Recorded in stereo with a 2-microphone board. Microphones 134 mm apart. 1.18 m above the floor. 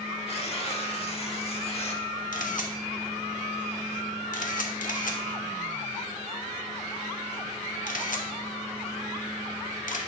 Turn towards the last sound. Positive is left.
turn(degrees=70)  # may be behind; listen again after turning